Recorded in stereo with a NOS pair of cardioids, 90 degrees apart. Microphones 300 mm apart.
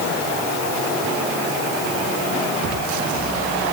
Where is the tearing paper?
I don't hear tearing paper.